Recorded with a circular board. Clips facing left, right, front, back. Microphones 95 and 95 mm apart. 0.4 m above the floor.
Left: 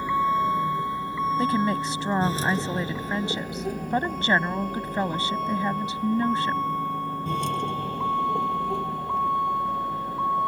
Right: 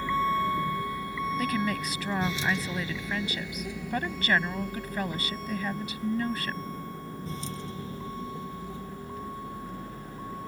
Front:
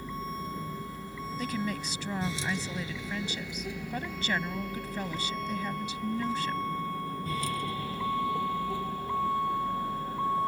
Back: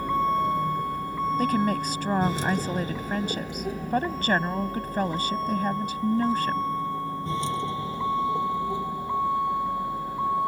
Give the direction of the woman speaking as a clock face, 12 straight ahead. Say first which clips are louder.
Left 5 dB, back 8 dB; 7 o'clock.